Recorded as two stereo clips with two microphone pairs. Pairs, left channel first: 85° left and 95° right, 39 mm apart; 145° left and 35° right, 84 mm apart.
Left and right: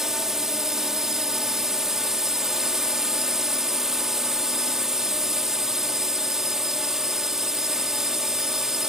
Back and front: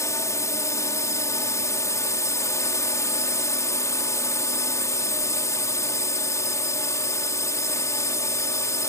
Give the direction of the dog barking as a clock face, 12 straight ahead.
No dog barking in this recording.